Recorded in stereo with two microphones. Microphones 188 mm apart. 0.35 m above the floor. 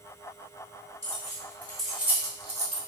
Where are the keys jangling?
20° left (ahead or behind), 1.9 m; by 2.8 s 45° right (ahead or behind), 0.9 m.